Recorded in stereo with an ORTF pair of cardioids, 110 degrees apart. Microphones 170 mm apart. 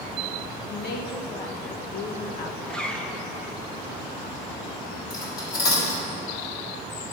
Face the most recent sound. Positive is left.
turn(degrees=65)